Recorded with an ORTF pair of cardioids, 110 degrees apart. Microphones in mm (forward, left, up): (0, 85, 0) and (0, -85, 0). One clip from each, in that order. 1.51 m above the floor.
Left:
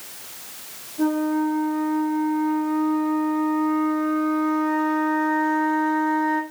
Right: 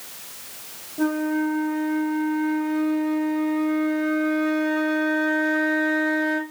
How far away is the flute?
About 0.8 m.